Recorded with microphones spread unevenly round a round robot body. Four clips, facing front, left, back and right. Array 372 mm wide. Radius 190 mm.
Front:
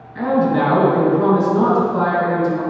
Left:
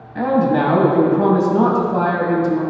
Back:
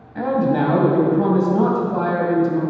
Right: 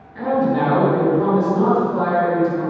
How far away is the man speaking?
About 3 m.